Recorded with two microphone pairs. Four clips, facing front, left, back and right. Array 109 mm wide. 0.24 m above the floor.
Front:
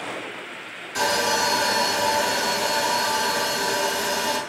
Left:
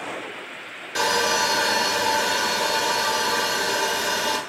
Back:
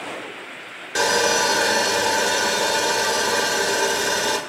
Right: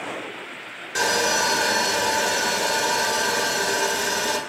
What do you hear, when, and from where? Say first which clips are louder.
0.9 s sawing: even, back 3 dB; 165° right, 0.9 m